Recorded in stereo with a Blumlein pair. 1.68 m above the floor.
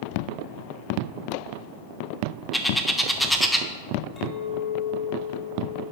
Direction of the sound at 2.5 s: Straight ahead.